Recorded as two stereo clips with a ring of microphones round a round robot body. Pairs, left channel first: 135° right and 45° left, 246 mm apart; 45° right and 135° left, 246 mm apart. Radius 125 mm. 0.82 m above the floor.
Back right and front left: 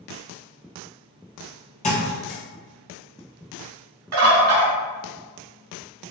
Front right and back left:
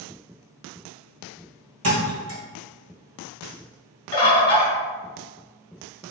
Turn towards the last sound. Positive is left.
turn(degrees=25)